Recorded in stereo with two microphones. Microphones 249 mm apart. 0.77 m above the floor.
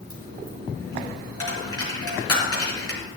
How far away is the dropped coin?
About 4.5 m.